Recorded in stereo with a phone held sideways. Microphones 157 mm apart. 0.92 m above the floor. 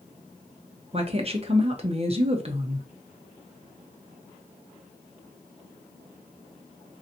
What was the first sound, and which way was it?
A woman speaking, 40° right (ahead or behind).